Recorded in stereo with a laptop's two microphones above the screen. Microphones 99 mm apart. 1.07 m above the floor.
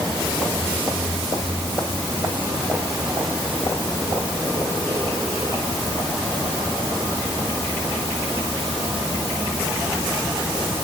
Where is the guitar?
No guitar in this recording.